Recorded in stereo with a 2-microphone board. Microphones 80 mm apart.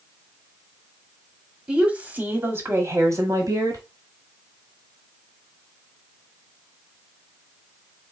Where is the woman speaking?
15° right (ahead or behind), 1.4 m; by 3.8 s 50° right (ahead or behind), 1.7 m.